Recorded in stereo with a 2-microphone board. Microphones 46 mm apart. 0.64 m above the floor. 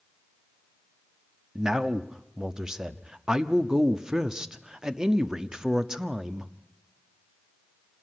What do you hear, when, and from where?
1.6 s a man speaking: 15° right (ahead or behind), 0.9 m